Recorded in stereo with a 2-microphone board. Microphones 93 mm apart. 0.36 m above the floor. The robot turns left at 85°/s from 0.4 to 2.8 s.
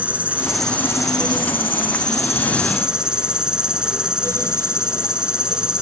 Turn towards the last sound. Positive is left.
turn(degrees=-5)